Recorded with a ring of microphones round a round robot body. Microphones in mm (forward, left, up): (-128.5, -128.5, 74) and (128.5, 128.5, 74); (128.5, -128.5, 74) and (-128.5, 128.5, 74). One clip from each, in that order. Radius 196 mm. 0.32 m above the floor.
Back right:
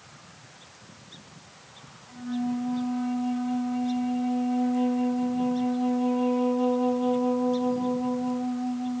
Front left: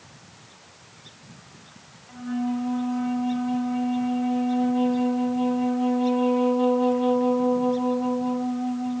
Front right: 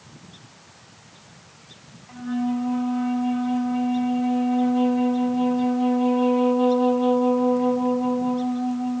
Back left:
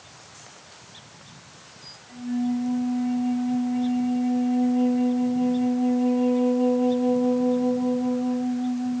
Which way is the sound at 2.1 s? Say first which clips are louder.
Front left 2 dB, front right 1 dB; 25° right.